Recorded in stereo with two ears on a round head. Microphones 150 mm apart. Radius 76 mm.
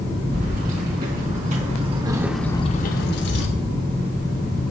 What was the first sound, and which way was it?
Keys jangling, 55° right (ahead or behind).